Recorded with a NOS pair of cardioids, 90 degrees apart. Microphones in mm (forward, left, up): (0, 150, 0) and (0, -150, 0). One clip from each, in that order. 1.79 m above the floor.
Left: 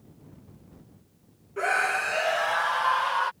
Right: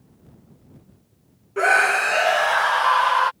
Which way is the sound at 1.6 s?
45° right.